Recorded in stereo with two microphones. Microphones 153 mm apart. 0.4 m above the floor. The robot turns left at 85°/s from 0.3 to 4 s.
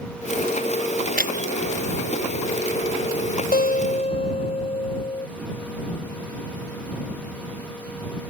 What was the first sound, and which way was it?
Breaking glass, 75° right (ahead or behind).